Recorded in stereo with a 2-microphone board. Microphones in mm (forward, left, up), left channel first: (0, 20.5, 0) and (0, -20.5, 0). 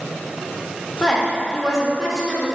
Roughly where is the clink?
No clink in this recording.